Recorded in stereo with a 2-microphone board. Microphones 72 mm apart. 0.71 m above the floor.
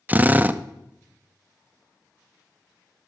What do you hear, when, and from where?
0.1 s a drill: 20° right (ahead or behind), 0.5 m